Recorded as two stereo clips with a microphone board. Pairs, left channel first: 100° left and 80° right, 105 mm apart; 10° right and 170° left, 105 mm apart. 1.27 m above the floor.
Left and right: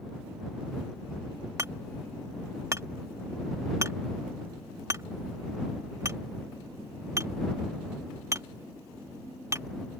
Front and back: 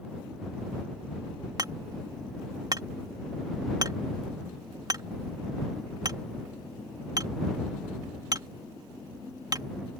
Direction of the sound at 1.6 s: 140° right.